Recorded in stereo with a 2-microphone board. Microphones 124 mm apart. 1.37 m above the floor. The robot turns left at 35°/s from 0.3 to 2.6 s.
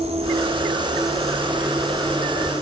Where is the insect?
125° right, 3 m; by 2.6 s 155° left, 3 m.